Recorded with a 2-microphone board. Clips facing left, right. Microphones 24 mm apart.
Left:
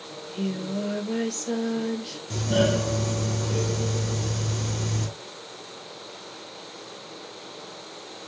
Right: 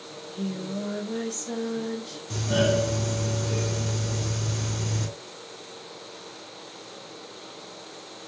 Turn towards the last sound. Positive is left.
turn(degrees=0)  # may be behind; listen again after turning